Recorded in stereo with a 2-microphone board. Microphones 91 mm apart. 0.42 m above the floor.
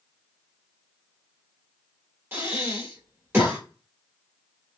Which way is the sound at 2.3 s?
25° right (ahead or behind).